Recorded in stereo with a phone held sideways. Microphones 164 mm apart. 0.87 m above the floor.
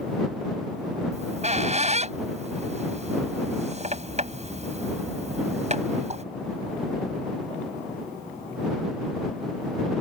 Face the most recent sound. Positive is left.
turn(degrees=-45)  # may be behind; listen again after turning